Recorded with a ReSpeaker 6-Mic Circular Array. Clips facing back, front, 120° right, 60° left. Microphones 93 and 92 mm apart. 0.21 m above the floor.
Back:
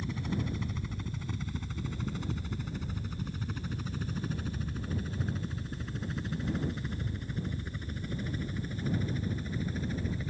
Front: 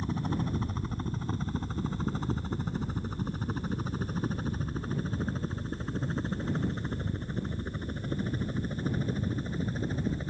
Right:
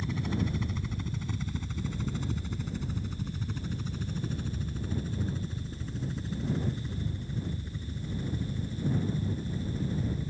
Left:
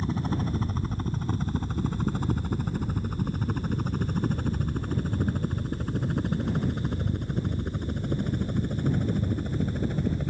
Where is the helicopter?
30° left; by 10.3 s 55° left.